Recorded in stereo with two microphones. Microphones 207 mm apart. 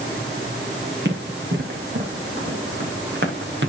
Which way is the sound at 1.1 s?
55° right (ahead or behind).